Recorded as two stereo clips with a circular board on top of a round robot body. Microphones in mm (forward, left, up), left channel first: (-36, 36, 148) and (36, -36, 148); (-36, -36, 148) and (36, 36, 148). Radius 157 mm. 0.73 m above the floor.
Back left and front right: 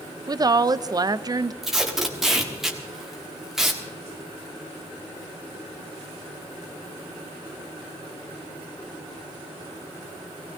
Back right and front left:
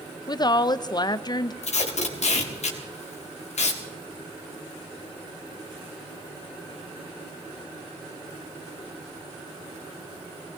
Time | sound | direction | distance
0.3 | a woman speaking | 90° right | 0.6 m
1.6 | tape being pulled | 130° right | 1.5 m